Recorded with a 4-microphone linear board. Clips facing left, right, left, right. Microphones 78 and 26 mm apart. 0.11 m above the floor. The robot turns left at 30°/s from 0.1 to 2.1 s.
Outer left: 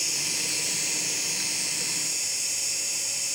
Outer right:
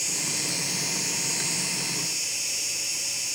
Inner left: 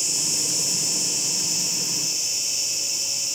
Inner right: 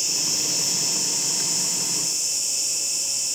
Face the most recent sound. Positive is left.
turn(degrees=150)